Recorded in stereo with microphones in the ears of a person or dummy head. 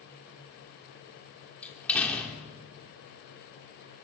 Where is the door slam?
5° left (ahead or behind), 3 m.